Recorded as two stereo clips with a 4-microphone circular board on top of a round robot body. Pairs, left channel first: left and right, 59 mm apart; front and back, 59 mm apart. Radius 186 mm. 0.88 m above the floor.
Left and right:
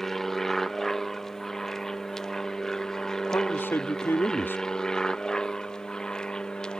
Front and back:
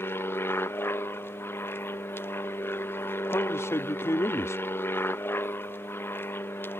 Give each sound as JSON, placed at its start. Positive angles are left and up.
{"t": 0.0, "sound": "an aircraft", "azimuth_deg": 5}
{"t": 3.3, "sound": "a man speaking", "azimuth_deg": 40}